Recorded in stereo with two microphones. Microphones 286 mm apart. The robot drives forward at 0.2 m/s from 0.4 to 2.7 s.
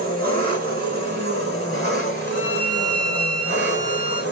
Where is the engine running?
30° right (ahead or behind), 2 m; by 4.3 s 35° right (ahead or behind), 1.8 m.